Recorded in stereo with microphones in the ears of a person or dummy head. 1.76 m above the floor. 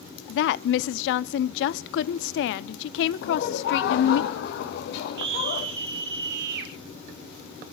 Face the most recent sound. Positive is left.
turn(degrees=-60)  # may be behind; listen again after turning